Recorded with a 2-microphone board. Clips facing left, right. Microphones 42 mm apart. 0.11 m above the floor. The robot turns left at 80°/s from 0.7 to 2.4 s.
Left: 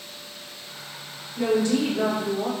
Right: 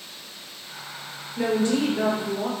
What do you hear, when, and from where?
1.4 s a woman speaking: 65° right, 1.8 m; by 2.5 s 150° right, 1.8 m